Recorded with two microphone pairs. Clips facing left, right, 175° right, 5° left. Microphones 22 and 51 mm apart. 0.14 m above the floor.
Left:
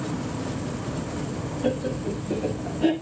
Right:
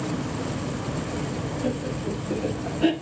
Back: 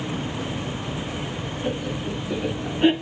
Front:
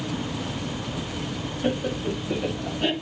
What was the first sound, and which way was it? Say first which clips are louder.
Laughter: left 4 dB, front 3 dB; 35° left.